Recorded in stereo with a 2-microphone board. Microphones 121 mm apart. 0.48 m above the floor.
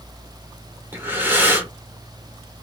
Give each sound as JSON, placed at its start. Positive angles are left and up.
{"t": 0.9, "sound": "breathing", "side_deg": -15, "distance_m": 1.0}